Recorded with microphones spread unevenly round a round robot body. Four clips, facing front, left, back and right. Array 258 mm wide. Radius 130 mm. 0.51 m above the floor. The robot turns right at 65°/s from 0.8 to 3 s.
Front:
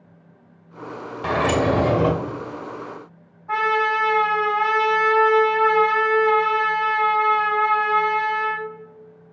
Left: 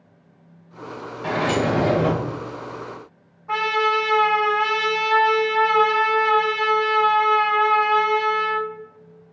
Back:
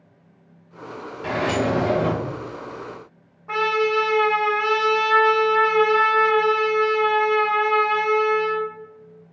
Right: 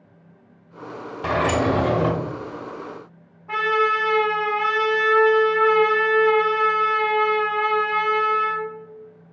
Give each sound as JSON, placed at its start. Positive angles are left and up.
{"t": 1.2, "sound": "a sliding door", "azimuth_deg": -65, "distance_m": 0.6}
{"t": 3.5, "sound": "a trumpet", "azimuth_deg": -155, "distance_m": 1.7}